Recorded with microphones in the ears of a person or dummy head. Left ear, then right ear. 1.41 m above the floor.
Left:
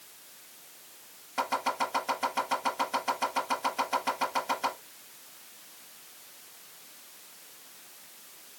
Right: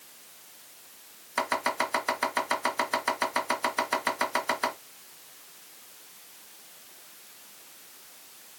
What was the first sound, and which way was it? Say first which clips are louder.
Chopping: right 2 dB; 60° right (ahead or behind).